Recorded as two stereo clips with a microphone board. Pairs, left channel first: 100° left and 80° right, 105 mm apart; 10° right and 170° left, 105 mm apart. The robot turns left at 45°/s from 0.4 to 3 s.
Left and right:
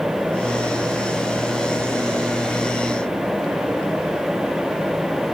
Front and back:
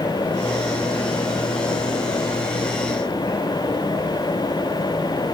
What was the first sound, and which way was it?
Only background noise.